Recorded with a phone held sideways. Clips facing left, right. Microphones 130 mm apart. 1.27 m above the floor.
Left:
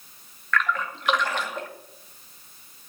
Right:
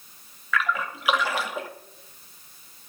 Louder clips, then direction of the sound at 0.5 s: Left 1 dB; 5° right (ahead or behind).